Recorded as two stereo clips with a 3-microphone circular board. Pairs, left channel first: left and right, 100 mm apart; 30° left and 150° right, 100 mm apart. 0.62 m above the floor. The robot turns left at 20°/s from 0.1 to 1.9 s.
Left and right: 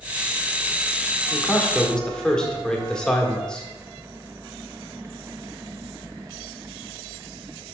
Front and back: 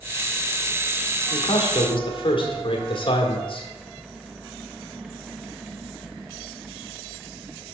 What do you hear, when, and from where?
1.3 s a man speaking: 20° left, 1.6 m; by 3.7 s 10° left, 1.6 m